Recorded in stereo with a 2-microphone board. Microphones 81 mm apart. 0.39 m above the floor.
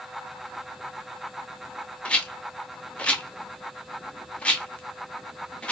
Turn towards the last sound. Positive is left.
turn(degrees=15)  # may be behind; listen again after turning